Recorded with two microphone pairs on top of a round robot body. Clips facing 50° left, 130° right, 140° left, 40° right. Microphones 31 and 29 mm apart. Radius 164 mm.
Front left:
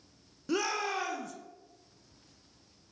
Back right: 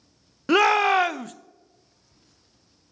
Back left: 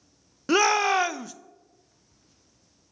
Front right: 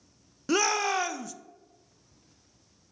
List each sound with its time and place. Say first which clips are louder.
0.5 s a shout: back right 14 dB, back left 5 dB; 155° right, 0.7 m